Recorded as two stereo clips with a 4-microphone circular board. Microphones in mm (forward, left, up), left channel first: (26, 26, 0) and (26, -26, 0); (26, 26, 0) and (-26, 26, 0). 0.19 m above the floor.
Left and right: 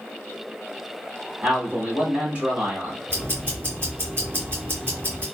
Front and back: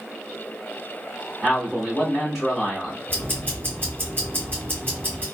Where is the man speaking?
95° right, 1.8 m.